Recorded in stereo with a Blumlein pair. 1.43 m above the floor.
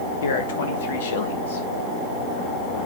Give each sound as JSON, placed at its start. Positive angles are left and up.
{"t": 0.2, "sound": "a man speaking", "azimuth_deg": 60, "distance_m": 2.5}